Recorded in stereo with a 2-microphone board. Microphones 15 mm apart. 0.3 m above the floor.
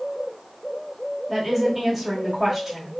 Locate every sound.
1.3 s a woman speaking: 10° right (ahead or behind), 1.3 m